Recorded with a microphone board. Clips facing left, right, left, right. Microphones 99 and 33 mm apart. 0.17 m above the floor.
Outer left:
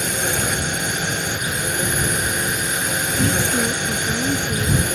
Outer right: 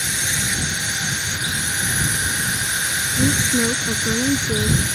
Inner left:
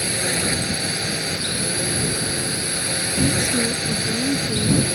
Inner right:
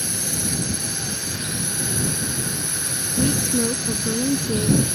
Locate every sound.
0.0 s a drone: 50° left (ahead or behind)
3.2 s a woman speaking: 20° right (ahead or behind)